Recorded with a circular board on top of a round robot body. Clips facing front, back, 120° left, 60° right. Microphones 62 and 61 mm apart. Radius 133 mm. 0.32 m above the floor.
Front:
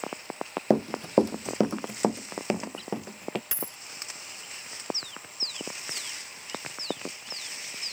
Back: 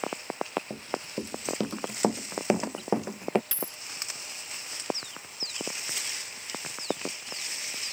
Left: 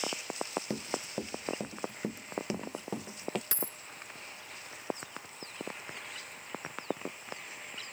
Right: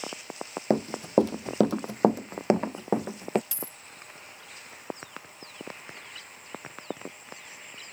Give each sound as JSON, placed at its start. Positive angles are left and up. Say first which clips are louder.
{"t": 0.7, "sound": "running footsteps", "louder": "front 12 dB, right 13 dB", "azimuth_deg": -10}
{"t": 3.5, "sound": "a dropped coin", "louder": "back 1 dB, left 1 dB", "azimuth_deg": 75}